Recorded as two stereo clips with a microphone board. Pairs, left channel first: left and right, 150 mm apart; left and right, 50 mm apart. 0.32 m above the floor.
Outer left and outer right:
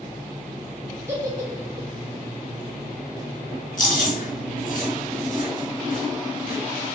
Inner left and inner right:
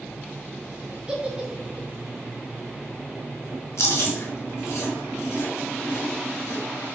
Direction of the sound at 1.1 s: 20° right (ahead or behind).